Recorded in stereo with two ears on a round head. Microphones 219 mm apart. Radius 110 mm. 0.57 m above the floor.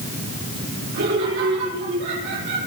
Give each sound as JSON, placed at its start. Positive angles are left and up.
{"t": 0.9, "sound": "laughter", "side_deg": -50, "distance_m": 10.0}